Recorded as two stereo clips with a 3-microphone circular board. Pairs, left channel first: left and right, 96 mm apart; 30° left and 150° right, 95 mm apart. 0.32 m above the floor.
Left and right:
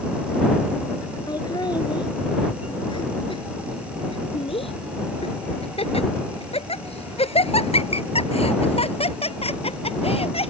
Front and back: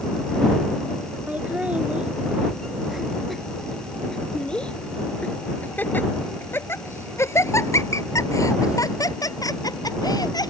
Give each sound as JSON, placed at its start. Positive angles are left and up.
{"t": 1.3, "sound": "laughter", "azimuth_deg": 135}